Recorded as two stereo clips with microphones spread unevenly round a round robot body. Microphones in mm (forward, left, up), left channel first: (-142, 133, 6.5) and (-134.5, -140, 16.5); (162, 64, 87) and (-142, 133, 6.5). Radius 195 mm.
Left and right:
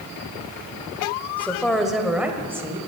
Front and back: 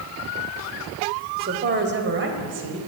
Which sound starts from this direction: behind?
A woman speaking, at 1.4 s.